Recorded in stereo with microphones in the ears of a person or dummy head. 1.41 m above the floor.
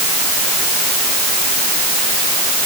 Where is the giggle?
I don't hear a giggle.